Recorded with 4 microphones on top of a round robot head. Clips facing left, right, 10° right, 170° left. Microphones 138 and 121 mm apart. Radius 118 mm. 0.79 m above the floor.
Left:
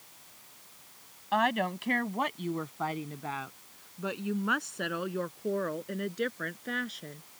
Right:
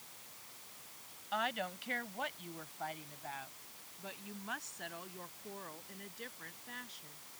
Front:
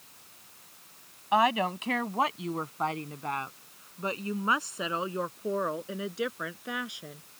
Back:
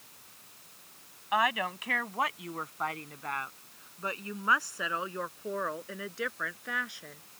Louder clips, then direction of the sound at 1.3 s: Left 10 dB, front 4 dB; 50° left.